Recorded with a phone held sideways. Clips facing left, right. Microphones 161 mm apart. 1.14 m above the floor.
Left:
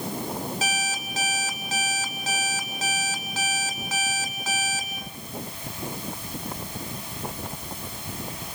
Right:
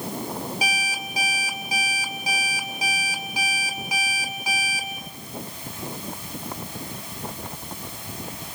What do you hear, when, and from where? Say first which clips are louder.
0.6 s an alarm clock: even; 10° right (ahead or behind), 2.5 m